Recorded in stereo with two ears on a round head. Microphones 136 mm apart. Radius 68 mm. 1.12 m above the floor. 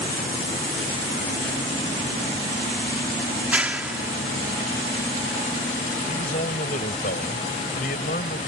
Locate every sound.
3.4 s a clap: 10° right (ahead or behind)
6.1 s a man speaking: 60° left (ahead or behind)